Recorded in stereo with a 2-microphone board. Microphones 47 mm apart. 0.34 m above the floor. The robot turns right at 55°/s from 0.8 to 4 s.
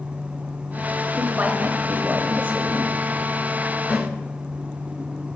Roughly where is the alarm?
I don't hear an alarm.